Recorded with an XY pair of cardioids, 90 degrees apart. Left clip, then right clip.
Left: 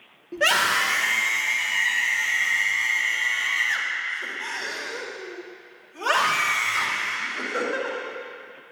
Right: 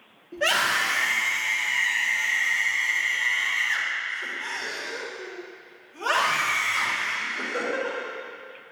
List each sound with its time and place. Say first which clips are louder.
0.3 s a scream: left 2 dB; 55° left, 2 m; by 8.0 s 35° left, 7.5 m